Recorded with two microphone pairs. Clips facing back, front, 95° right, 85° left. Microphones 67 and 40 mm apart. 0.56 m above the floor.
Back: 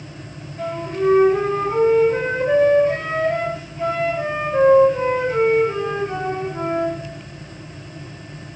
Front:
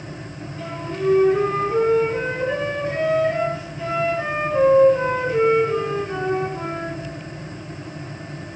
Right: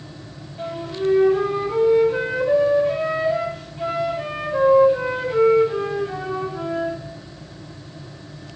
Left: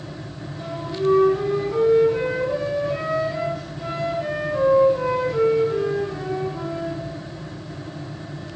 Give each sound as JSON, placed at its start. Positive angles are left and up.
{"t": 0.6, "sound": "a flute", "azimuth_deg": -135, "distance_m": 2.5}